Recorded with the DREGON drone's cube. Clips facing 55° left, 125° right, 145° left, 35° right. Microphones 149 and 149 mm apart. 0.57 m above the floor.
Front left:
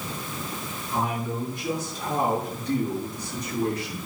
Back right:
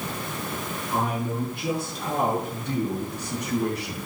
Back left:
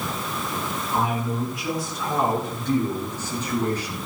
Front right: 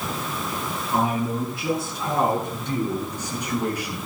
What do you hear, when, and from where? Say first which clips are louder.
0.9 s a man speaking: back right 1 dB, front right 2 dB; 90° right, 6 m; by 4.0 s 115° right, 7 m